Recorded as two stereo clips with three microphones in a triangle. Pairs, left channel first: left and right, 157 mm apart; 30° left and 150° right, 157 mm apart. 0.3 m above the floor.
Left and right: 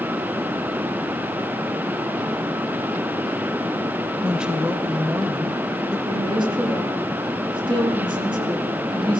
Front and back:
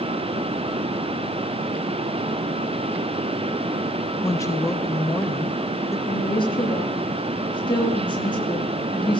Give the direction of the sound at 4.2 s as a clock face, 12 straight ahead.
12 o'clock.